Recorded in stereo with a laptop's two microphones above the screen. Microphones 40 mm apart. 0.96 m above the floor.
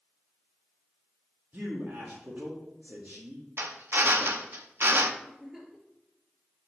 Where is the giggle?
15° right (ahead or behind), 4.5 m.